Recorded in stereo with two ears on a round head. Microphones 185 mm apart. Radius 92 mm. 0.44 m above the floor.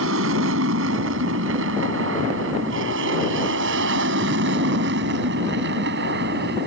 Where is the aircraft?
70° right (ahead or behind); by 6.7 s 55° right (ahead or behind).